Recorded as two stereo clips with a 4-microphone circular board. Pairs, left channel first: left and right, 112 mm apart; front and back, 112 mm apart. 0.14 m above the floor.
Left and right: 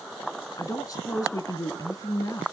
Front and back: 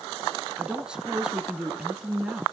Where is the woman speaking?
105° left, 1.6 m.